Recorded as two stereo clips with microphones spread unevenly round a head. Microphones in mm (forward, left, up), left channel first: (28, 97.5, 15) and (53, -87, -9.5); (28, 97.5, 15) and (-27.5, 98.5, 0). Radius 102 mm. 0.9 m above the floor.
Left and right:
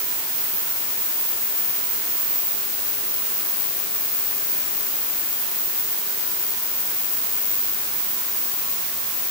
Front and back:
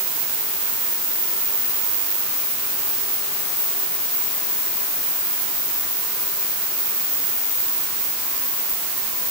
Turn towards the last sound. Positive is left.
No sound to turn to.